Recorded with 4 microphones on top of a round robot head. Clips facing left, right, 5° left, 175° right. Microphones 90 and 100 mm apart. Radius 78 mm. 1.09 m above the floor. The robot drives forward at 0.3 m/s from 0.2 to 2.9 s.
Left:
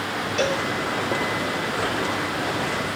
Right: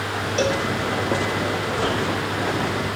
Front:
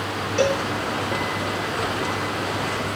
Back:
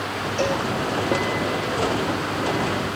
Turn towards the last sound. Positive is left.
turn(degrees=-40)